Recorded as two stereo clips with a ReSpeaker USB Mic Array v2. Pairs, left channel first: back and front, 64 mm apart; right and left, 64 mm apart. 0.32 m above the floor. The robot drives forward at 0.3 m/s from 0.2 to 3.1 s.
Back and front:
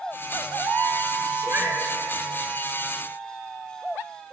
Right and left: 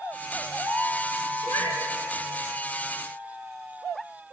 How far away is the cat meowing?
About 2 m.